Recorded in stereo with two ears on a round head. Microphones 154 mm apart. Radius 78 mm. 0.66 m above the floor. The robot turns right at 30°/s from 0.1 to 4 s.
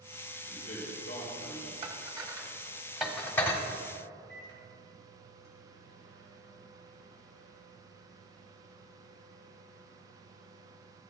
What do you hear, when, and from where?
0.5 s a man speaking: 95° left, 3.5 m; by 1.7 s 135° left, 3.5 m
1.8 s dishes clattering: 35° right (ahead or behind), 1.1 m; by 3.6 s 15° left (ahead or behind), 1.1 m
4.3 s a microwave: 75° right (ahead or behind), 5 m